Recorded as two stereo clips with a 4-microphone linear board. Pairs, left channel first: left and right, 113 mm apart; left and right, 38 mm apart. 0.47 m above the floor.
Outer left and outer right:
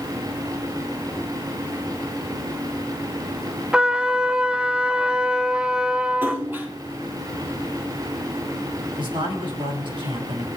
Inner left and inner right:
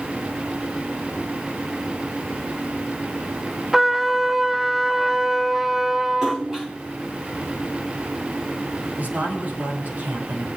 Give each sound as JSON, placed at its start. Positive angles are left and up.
{"t": 3.7, "sound": "a trumpet", "side_deg": -10, "distance_m": 0.6}
{"t": 6.2, "sound": "a splash", "side_deg": -20, "distance_m": 6.5}
{"t": 9.0, "sound": "a man speaking", "side_deg": -50, "distance_m": 5.5}